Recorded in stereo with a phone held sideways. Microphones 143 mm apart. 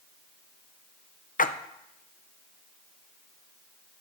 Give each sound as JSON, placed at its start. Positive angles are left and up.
{"t": 1.4, "sound": "a splash", "side_deg": 65, "distance_m": 0.5}